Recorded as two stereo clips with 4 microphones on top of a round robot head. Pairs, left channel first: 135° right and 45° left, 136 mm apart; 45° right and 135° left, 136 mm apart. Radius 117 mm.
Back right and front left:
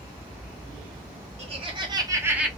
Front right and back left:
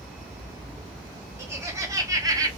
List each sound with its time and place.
1.4 s laughter: 70° left, 1.9 m; by 2.5 s 125° left, 1.3 m